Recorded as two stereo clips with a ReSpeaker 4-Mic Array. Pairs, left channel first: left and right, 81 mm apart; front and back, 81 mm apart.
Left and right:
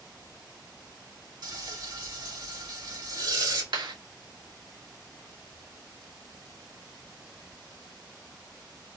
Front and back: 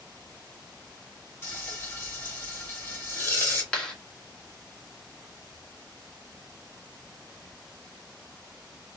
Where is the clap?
75° right, 2 m.